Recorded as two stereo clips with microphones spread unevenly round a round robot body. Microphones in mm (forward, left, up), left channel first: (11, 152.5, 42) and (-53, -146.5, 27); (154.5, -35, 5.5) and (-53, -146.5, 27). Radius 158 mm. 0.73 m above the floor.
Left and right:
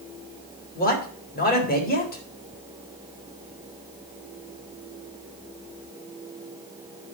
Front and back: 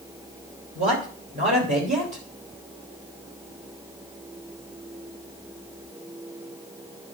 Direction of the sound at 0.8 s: 140° left.